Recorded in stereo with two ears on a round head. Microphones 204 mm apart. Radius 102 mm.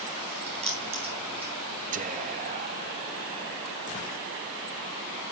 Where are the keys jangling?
25° right (ahead or behind), 3.5 m.